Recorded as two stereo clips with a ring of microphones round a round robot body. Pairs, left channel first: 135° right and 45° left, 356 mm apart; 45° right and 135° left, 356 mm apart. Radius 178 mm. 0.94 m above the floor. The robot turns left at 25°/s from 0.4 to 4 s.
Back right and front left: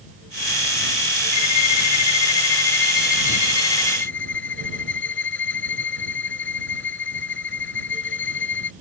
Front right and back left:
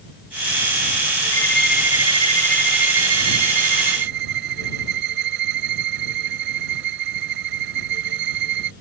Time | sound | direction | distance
1.3 | a violin | 125° right | ?